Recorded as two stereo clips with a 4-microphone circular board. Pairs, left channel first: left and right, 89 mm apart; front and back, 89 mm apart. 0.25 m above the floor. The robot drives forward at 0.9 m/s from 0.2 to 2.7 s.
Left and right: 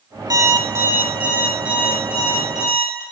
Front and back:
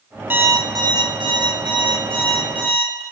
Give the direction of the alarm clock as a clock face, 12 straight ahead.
4 o'clock.